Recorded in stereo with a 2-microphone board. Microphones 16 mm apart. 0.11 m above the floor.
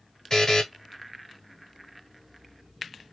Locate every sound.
0.3 s a buzzer: 40° left (ahead or behind), 1.2 m